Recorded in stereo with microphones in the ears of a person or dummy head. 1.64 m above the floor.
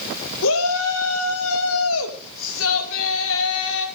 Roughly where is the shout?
Left.